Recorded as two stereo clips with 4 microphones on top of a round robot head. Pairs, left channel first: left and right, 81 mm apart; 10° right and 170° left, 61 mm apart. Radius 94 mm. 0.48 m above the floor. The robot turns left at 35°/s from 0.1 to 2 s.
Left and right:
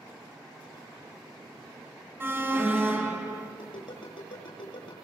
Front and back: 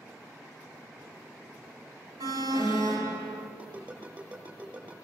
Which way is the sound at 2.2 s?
155° right.